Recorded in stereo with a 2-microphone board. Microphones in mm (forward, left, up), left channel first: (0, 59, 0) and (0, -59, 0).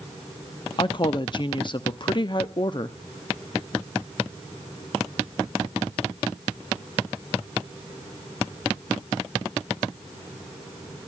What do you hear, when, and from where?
0.8 s a woman speaking: 40° left (ahead or behind), 0.8 m